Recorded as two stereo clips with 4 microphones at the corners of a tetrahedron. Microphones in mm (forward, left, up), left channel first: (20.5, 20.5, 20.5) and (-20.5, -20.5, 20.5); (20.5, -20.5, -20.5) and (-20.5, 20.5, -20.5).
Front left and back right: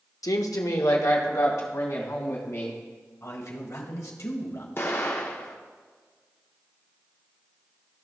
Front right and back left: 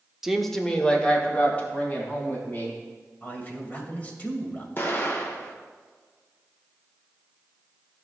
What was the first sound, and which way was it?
A woman speaking, 55° left.